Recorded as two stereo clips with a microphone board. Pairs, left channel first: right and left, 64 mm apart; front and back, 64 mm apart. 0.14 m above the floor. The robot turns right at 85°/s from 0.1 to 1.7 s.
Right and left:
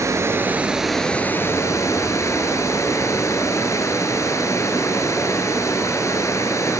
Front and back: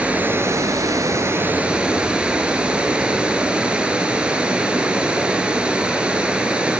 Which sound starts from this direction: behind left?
Running water, at 0.0 s.